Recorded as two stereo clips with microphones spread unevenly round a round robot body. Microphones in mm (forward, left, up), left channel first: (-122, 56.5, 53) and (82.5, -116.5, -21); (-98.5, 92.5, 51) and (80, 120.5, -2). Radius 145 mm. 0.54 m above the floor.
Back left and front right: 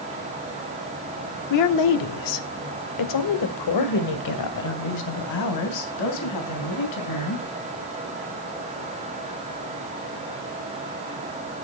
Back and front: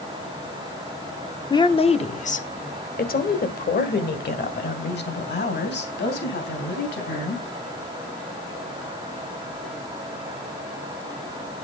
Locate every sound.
1.5 s a woman speaking: 110° left, 1.1 m; by 7.4 s 165° left, 4.5 m